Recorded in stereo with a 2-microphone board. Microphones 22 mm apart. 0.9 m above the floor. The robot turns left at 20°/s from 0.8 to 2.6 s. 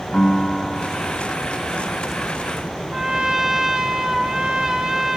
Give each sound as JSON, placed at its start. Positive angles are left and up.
{"t": 0.1, "sound": "a piano", "side_deg": 40, "distance_m": 2.0}
{"t": 2.9, "sound": "a trumpet", "side_deg": -30, "distance_m": 0.7}